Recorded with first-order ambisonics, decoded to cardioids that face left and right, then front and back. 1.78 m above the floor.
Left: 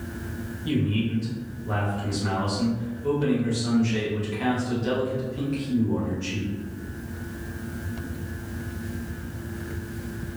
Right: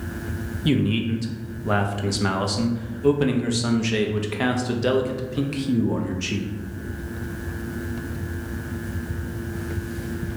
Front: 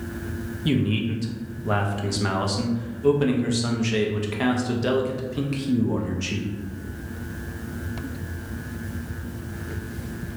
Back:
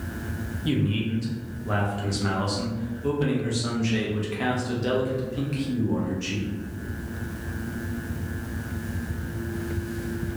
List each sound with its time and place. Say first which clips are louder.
0.7 s a man speaking: right 4 dB, front 2 dB; 70° right, 0.5 m